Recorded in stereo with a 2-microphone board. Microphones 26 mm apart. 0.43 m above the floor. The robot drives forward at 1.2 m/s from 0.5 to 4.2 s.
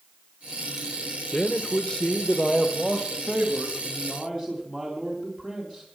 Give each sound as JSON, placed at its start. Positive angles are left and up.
{"t": 1.3, "sound": "a man speaking", "side_deg": 35, "distance_m": 1.3}